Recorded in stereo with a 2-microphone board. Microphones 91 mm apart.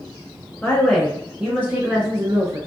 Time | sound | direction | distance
0.6 | a woman speaking | 10° left (ahead or behind) | 1.3 m